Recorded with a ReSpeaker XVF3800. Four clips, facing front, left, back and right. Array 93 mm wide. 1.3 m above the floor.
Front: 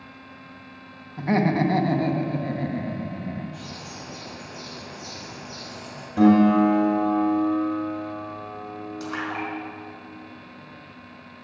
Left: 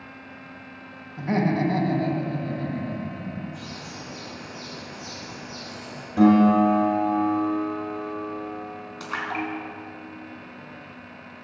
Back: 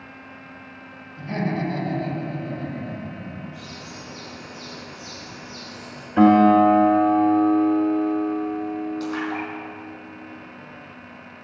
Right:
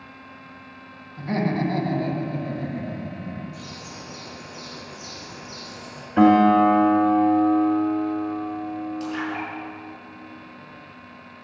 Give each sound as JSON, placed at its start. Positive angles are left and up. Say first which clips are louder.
{"t": 1.2, "sound": "laughter", "louder": "left 1 dB, front 5 dB", "azimuth_deg": 15, "distance_m": 1.9}
{"t": 3.5, "sound": "a bird", "louder": "left 1 dB, even", "azimuth_deg": 35, "distance_m": 5.0}
{"t": 6.2, "sound": "a guitar", "louder": "right 2 dB, back 3 dB", "azimuth_deg": -135, "distance_m": 2.0}
{"t": 9.0, "sound": "a splash", "louder": "right 1 dB, back 3 dB", "azimuth_deg": 80, "distance_m": 4.0}